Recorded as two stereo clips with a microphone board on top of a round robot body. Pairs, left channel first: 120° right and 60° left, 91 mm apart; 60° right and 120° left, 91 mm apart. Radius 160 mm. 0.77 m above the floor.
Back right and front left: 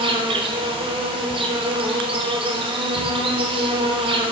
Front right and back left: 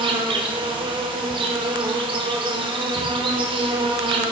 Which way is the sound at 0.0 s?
90° left.